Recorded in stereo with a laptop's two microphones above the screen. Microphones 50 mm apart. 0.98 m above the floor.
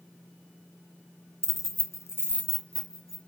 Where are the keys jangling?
50° left (ahead or behind), 0.6 m; by 3.2 s 10° left (ahead or behind), 1.4 m.